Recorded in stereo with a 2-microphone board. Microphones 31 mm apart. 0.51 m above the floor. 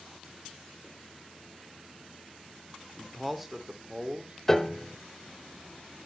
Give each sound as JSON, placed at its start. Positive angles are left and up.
{"t": 3.0, "sound": "a man speaking", "side_deg": 15, "distance_m": 1.5}
{"t": 4.5, "sound": "a piano", "side_deg": 15, "distance_m": 0.6}